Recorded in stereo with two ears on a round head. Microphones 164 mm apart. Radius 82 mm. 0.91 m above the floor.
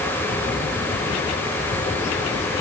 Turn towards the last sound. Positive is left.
No sound to turn to.